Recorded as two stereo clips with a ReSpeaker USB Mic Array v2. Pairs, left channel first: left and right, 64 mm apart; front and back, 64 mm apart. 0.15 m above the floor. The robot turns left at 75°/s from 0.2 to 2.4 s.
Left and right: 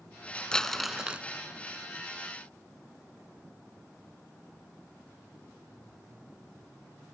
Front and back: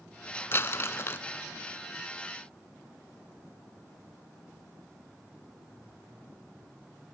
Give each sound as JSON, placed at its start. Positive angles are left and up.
{"t": 0.5, "sound": "crumpling", "azimuth_deg": 20, "distance_m": 0.5}